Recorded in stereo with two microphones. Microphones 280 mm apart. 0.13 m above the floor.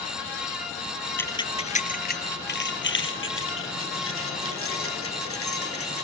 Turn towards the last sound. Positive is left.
turn(degrees=55)  # may be behind; listen again after turning